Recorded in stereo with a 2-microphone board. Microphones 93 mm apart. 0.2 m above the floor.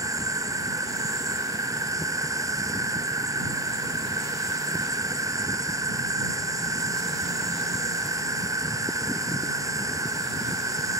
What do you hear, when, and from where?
0.0 s an insect: 35° right (ahead or behind)